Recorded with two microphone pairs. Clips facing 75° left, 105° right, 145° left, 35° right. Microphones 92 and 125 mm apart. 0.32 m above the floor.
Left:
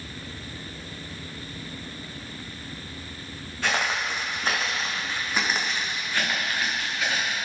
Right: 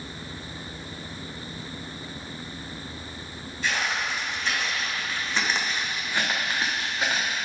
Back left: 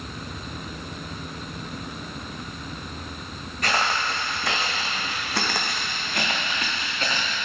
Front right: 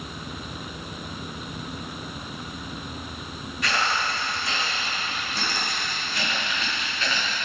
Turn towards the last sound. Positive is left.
turn(degrees=-155)